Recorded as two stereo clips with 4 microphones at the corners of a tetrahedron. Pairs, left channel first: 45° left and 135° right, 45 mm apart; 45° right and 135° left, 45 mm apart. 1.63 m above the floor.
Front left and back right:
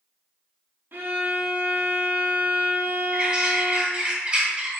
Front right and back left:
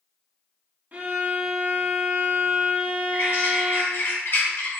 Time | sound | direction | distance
0.9 | a violin | 175° right | 1.5 m
3.1 | a bird | 65° right | 2 m